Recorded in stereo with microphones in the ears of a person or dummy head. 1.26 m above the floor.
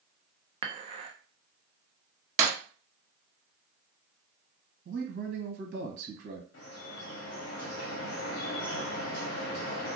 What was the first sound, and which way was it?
Dishes clattering, 25° right (ahead or behind).